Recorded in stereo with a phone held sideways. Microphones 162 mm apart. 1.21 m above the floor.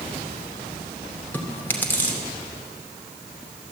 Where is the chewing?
10° left (ahead or behind), 2.5 m.